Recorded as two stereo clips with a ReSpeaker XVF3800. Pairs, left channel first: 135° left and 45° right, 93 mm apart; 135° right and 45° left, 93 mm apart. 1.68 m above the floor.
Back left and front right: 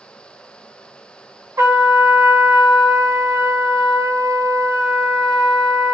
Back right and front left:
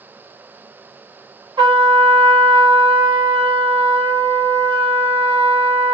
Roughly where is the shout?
I don't hear a shout.